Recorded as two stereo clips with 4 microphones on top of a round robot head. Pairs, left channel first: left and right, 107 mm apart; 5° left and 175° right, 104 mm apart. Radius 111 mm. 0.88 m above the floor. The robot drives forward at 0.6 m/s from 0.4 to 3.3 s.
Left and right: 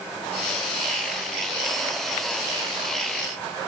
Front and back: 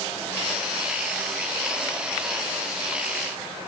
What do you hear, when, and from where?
Only background noise.